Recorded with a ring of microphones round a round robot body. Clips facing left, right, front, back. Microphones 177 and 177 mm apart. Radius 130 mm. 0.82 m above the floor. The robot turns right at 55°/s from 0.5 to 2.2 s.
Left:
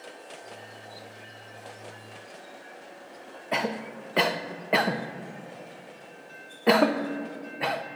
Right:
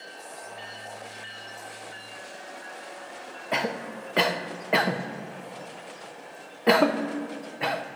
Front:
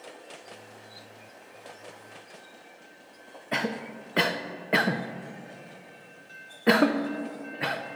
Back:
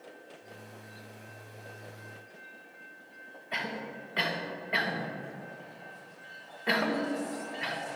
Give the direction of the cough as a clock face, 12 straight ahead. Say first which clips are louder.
Even, front 7 dB; 12 o'clock.